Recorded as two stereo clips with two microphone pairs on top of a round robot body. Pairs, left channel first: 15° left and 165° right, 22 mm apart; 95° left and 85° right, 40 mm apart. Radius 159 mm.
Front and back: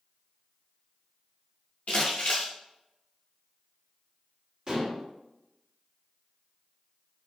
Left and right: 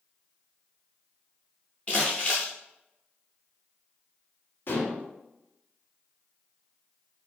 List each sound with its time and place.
1.9 s crumpling: 40° left, 0.6 m
4.7 s dishes clattering: 135° left, 1.3 m